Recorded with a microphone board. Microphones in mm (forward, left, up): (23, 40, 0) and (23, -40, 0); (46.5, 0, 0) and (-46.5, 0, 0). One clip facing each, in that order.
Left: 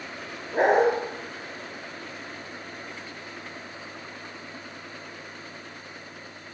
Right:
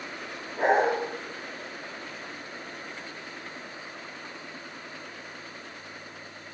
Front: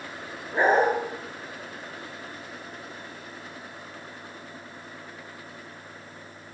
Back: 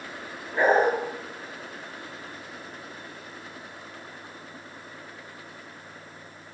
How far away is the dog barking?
About 9 m.